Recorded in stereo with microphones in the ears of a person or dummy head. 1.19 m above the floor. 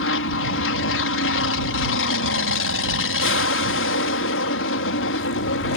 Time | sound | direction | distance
0.0 | an aircraft | 60° left (ahead or behind) | ?